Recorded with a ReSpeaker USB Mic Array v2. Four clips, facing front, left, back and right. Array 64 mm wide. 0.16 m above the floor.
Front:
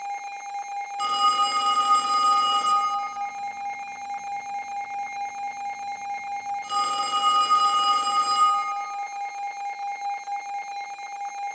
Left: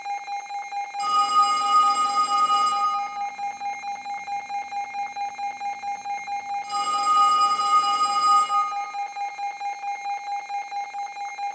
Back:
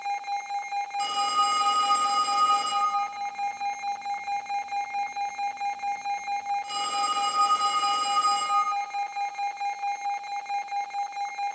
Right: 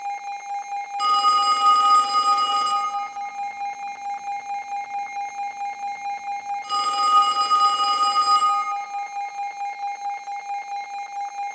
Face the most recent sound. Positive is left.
turn(degrees=-60)